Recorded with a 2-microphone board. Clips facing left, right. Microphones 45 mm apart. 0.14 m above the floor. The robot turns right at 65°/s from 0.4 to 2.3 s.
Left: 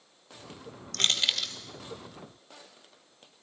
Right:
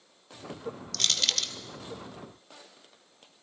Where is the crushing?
40° left (ahead or behind), 1.2 m; by 1.5 s centre (ahead or behind), 1.2 m.